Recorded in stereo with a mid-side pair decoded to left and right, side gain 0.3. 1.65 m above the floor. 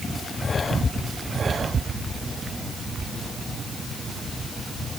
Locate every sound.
Only background noise.